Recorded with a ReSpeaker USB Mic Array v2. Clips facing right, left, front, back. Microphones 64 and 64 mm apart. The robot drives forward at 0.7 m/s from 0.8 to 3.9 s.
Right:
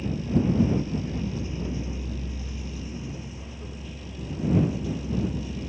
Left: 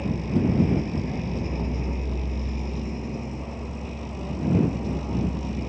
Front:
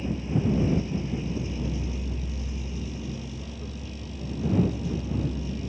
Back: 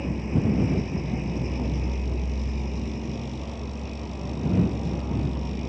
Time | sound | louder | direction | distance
0.0 | a vehicle | left 1 dB, back 1 dB | 130° left | ?